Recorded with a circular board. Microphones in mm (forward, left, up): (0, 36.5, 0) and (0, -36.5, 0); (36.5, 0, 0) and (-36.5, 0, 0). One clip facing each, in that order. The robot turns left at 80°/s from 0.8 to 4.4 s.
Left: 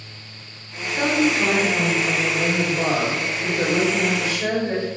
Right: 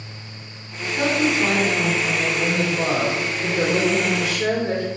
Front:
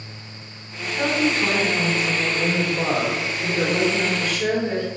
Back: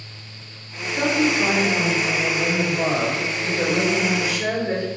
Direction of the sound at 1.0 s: 165° left.